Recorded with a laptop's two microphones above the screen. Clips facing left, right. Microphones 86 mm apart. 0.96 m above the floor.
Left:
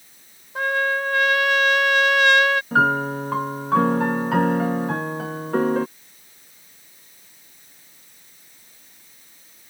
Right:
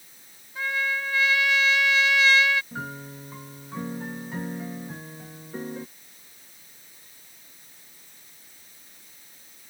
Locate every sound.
0.6 s a trumpet: 60° left (ahead or behind)
2.7 s a piano: 80° left